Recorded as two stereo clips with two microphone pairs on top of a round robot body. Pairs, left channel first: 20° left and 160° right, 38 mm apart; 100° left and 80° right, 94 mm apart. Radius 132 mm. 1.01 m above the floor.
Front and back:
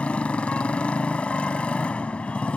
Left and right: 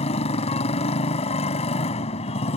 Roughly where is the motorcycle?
Left.